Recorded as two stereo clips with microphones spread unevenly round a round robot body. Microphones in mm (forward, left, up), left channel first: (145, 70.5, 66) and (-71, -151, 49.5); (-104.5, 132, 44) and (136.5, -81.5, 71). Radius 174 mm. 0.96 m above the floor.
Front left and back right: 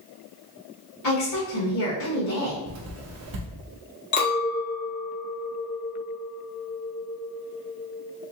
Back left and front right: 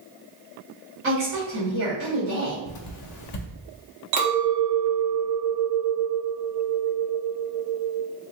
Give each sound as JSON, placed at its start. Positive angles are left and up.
{"t": 1.0, "sound": "a woman speaking", "azimuth_deg": 10, "distance_m": 1.8}
{"t": 2.7, "sound": "writing", "azimuth_deg": 180, "distance_m": 0.5}
{"t": 4.1, "sound": "a clink", "azimuth_deg": -10, "distance_m": 1.0}